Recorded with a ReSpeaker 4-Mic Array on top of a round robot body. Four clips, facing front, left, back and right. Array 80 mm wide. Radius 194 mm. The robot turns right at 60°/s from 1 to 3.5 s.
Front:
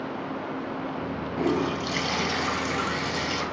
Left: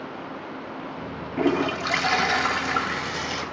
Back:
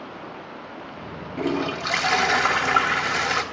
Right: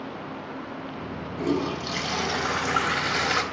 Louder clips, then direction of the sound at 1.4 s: Left 4 dB, back 1 dB; 100° left.